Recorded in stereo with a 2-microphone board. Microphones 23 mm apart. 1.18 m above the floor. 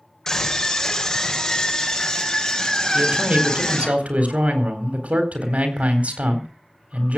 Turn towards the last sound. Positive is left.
turn(degrees=-80)